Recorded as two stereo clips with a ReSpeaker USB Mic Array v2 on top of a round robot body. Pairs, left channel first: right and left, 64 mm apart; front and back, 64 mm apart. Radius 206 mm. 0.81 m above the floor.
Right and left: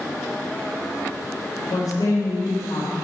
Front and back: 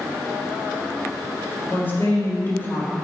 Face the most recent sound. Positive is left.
turn(degrees=-60)